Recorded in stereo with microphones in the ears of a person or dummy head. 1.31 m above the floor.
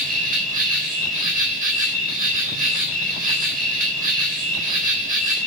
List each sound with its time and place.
0.0 s an insect: 45° right (ahead or behind), 4 m